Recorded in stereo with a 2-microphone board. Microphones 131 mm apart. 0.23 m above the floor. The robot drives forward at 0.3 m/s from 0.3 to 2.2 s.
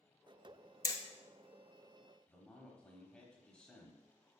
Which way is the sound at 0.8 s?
30° left (ahead or behind).